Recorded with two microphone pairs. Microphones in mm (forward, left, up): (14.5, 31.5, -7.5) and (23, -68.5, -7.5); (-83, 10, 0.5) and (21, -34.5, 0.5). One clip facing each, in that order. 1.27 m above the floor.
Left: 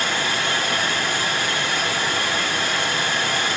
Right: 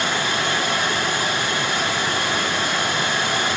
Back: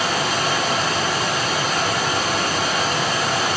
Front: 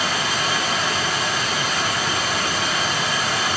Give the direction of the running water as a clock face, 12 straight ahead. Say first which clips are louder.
Right 1 dB, back 2 dB; 5 o'clock.